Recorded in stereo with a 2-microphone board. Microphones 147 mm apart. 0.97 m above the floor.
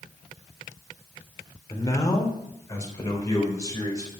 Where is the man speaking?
25° left (ahead or behind), 3 m.